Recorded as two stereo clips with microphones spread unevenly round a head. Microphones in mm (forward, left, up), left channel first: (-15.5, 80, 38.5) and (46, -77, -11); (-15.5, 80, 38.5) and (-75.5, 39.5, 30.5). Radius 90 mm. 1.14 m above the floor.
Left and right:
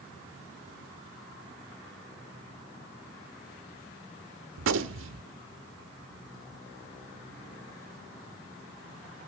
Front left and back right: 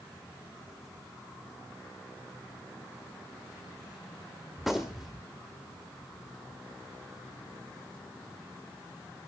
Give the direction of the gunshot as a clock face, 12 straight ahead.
2 o'clock.